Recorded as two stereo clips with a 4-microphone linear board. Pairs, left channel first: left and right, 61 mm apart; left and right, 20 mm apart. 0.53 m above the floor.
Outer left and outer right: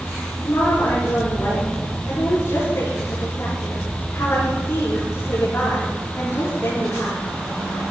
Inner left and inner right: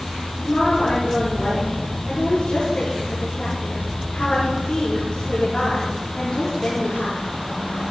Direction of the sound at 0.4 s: 50° left (ahead or behind).